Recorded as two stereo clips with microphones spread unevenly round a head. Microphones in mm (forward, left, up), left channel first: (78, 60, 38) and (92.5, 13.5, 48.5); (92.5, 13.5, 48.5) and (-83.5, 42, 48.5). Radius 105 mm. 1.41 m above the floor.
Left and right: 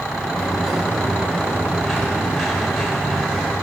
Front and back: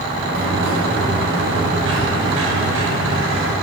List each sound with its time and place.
0.1 s a sliding door: 170° right, 8.5 m